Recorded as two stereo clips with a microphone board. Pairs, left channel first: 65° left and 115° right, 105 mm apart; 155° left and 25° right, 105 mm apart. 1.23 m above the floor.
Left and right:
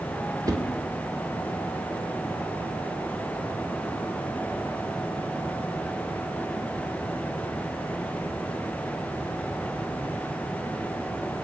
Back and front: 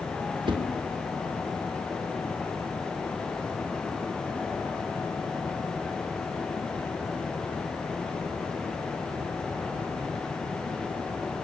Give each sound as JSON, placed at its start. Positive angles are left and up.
{"t": 0.5, "sound": "a whoosh", "azimuth_deg": -55, "distance_m": 1.9}